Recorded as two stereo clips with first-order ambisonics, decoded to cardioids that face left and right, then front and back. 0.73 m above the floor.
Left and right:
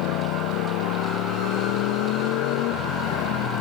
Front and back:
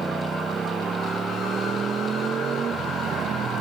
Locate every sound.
0.0 s a motorcycle: 105° left; by 3.6 s 120° left